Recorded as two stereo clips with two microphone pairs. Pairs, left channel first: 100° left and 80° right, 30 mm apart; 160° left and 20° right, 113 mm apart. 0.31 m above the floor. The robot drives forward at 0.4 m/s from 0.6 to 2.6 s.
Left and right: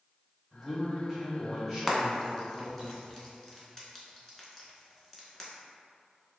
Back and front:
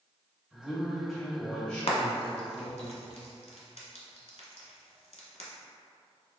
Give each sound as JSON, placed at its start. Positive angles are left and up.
{"t": 0.5, "sound": "a man speaking", "azimuth_deg": -90, "distance_m": 1.4}
{"t": 1.9, "sound": "frying", "azimuth_deg": -175, "distance_m": 0.7}